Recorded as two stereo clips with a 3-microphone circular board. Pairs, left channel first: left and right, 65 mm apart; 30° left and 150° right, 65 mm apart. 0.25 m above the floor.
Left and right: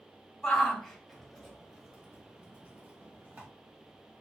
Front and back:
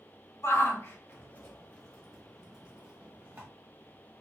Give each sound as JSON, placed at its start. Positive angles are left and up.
{"t": 0.4, "sound": "a shout", "azimuth_deg": 15, "distance_m": 1.4}